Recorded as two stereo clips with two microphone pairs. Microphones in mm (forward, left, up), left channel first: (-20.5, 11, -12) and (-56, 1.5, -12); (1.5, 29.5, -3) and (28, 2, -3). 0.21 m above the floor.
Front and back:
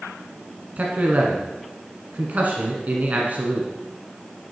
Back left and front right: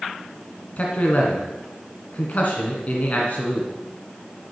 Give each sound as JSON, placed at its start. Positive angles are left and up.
{"t": 0.8, "sound": "a man speaking", "azimuth_deg": 170, "distance_m": 1.7}